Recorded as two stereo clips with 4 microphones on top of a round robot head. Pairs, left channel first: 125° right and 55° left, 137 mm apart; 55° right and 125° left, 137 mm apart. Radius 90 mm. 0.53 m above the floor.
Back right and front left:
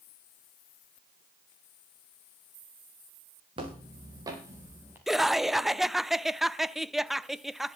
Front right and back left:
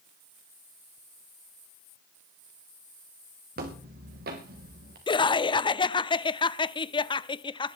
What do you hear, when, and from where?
3.6 s footsteps: 110° left, 4 m; by 5.0 s 130° left, 4.5 m
5.1 s laughter: 35° right, 0.7 m